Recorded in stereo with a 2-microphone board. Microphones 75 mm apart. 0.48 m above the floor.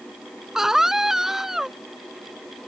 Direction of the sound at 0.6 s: 5° right (ahead or behind).